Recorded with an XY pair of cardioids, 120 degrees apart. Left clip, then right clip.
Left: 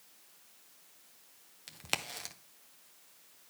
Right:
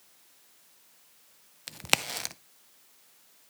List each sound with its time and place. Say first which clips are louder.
1.7 s a crack: right 9 dB; 45° right, 0.5 m